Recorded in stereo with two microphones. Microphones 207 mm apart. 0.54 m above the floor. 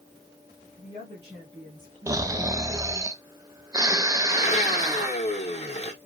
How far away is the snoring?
About 0.6 m.